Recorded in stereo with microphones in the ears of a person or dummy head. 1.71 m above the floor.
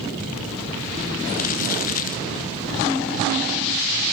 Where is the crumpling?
45° left (ahead or behind), 1.1 m.